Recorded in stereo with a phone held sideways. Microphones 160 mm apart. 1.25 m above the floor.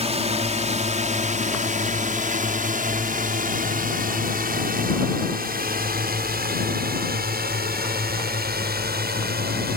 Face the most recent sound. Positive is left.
turn(degrees=-80)